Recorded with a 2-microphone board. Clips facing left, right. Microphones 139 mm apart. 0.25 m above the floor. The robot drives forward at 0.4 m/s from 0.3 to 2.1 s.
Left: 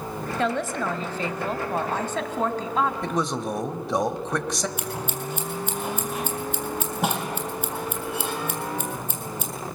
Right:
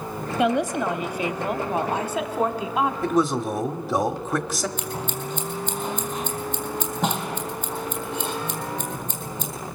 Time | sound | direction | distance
0.4 | a woman speaking | 15° right (ahead or behind) | 1.1 m
3.0 | a man speaking | 5° right (ahead or behind) | 1.0 m
4.8 | scissors | 10° left (ahead or behind) | 3 m